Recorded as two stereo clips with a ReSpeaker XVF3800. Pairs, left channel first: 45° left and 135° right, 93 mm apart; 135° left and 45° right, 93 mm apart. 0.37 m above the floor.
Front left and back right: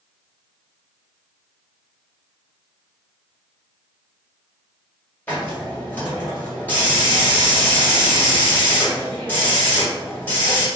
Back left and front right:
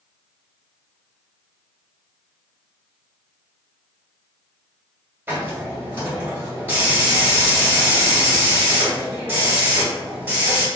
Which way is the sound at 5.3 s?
Straight ahead.